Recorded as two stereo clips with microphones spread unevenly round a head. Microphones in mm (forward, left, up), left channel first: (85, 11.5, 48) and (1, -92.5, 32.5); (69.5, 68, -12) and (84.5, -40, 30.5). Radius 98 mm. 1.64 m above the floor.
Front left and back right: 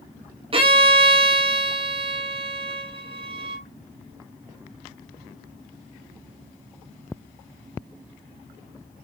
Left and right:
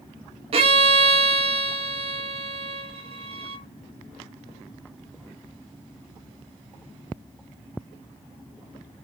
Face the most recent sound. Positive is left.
turn(degrees=-80)